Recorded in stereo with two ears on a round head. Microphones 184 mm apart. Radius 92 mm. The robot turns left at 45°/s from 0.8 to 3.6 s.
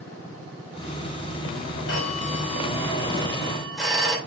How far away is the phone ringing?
About 3 m.